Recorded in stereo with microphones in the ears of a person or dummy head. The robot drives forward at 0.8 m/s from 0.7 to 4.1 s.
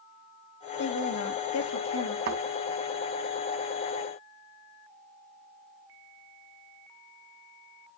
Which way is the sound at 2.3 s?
55° right (ahead or behind).